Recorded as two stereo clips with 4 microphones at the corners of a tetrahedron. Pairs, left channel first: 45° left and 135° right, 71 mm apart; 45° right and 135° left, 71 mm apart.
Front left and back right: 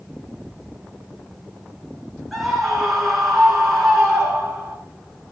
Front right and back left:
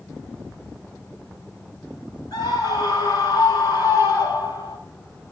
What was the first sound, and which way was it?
A scream, 45° right.